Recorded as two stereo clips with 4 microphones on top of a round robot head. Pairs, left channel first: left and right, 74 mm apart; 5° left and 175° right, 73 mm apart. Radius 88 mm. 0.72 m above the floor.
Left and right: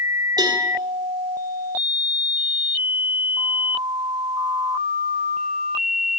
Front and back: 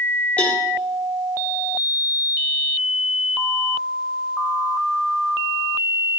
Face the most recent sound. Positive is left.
turn(degrees=-70)